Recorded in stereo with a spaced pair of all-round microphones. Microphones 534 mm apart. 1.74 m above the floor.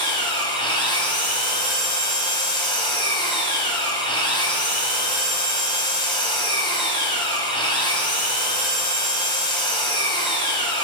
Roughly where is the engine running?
Centre.